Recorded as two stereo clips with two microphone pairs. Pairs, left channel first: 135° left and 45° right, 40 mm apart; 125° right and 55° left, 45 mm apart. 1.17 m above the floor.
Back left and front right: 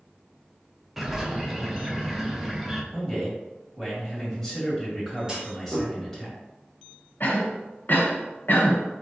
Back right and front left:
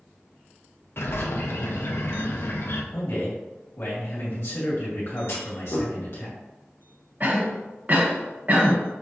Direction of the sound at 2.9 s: 140° right.